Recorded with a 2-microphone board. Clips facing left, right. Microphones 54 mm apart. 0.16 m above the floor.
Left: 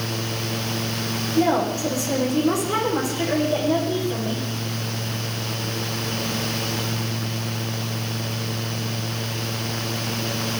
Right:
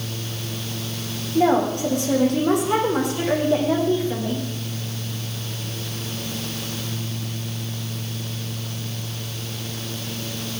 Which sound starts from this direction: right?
A woman speaking, at 1.4 s.